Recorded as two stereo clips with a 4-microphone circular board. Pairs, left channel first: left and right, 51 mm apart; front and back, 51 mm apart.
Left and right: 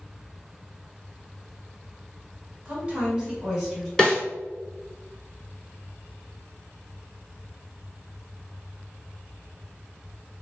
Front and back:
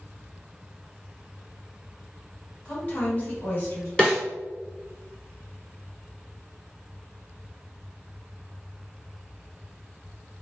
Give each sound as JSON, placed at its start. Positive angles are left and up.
{"t": 2.6, "sound": "a woman speaking", "azimuth_deg": -45, "distance_m": 1.3}
{"t": 4.0, "sound": "a snare drum", "azimuth_deg": 35, "distance_m": 1.7}